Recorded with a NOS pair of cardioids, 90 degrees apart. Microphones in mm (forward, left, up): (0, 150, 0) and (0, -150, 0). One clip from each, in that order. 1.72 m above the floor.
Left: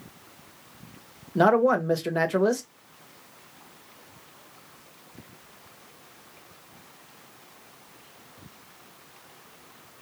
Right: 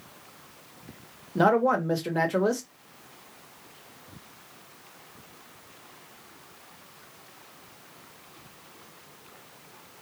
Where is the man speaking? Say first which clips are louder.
Left 2 dB; 10° left, 0.9 m.